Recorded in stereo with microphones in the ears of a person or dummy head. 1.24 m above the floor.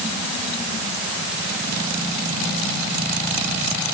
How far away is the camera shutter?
I don't hear a camera shutter.